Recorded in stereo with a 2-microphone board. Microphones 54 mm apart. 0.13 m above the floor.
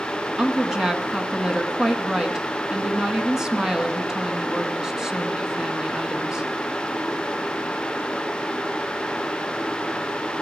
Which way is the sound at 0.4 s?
10° right (ahead or behind).